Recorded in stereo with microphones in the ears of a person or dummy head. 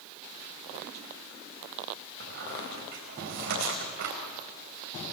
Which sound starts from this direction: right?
A squeak, at 2.2 s.